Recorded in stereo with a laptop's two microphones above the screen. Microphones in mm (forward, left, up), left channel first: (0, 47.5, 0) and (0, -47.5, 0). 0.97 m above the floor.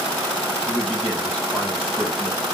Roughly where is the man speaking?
Centre.